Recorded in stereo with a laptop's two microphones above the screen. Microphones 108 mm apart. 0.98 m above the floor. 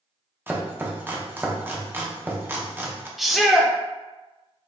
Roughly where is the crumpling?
No crumpling in this recording.